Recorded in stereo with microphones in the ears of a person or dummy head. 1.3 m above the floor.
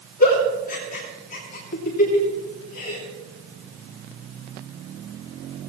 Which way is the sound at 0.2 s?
40° left (ahead or behind).